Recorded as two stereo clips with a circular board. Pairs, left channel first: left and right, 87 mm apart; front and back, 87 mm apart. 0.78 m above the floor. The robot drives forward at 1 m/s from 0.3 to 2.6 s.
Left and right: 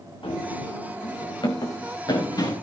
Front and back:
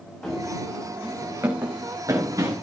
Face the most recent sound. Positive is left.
turn(degrees=135)